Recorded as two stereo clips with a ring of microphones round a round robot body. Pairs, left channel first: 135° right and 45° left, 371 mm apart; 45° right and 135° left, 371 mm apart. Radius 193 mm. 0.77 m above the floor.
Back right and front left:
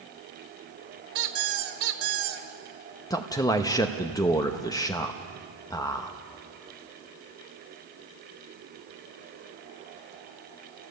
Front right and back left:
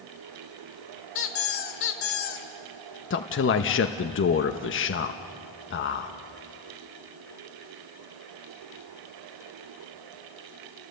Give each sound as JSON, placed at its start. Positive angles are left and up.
{"t": 1.1, "sound": "a squeak", "azimuth_deg": 10, "distance_m": 2.0}
{"t": 3.1, "sound": "a man speaking", "azimuth_deg": -65, "distance_m": 1.0}